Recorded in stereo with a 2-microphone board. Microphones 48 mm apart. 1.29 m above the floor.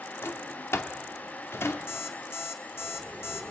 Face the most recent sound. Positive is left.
turn(degrees=70)  # may be behind; listen again after turning